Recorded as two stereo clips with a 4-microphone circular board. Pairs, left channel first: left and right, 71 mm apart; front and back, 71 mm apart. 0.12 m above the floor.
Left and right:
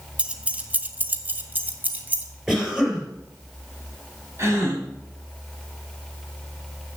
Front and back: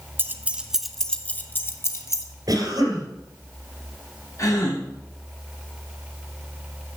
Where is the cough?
175° right, 3 m.